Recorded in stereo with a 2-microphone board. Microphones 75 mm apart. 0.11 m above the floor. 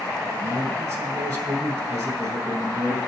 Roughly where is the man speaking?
Right.